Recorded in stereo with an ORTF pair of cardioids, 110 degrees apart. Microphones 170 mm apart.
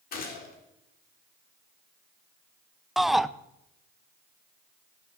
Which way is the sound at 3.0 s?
Straight ahead.